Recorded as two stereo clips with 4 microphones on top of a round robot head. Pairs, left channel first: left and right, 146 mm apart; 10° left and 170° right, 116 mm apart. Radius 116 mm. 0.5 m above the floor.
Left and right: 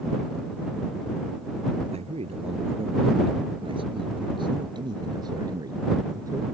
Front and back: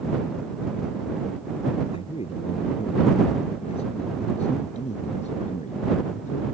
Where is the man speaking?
45° right; by 6.4 s 20° right.